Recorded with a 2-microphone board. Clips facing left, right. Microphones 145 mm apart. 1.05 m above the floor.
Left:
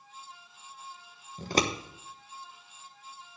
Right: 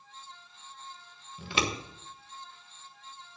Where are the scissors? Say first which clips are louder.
Left 4 dB; 40° left (ahead or behind), 0.9 m.